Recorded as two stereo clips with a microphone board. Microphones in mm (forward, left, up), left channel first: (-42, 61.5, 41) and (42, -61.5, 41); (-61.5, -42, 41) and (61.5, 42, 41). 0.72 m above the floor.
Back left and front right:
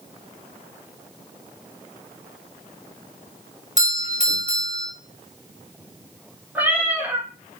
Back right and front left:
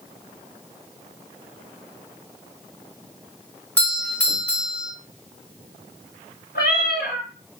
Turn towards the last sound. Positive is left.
turn(degrees=-135)